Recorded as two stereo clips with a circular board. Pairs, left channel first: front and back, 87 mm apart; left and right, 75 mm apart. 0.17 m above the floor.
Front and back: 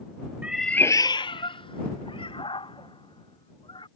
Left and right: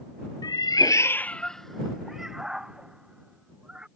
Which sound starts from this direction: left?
A cat meowing, at 0.4 s.